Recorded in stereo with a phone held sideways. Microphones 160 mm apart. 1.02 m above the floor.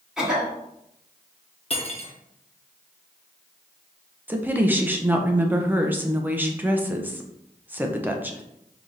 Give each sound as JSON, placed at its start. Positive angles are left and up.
{"t": 0.2, "sound": "a cough", "side_deg": -5, "distance_m": 2.5}
{"t": 1.7, "sound": "cutlery clinking", "side_deg": 40, "distance_m": 0.9}
{"t": 4.3, "sound": "a woman speaking", "side_deg": -10, "distance_m": 0.6}